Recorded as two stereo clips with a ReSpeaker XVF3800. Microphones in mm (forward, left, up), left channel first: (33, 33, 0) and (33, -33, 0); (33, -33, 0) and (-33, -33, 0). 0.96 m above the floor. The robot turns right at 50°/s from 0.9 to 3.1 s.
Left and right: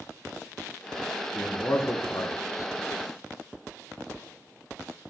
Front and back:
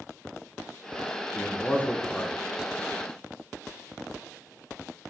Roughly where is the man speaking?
Ahead left.